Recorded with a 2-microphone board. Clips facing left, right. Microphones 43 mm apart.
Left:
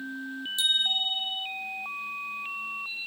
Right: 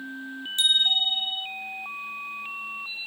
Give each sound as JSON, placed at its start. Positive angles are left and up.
{"t": 0.6, "sound": "a bicycle bell", "side_deg": -55, "distance_m": 2.5}